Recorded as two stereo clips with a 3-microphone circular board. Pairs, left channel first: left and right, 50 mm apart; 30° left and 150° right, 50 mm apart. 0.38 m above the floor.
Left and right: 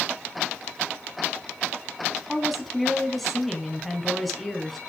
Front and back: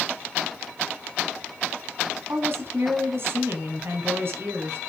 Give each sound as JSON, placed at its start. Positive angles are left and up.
{"t": 2.3, "sound": "a woman speaking", "azimuth_deg": 175, "distance_m": 2.5}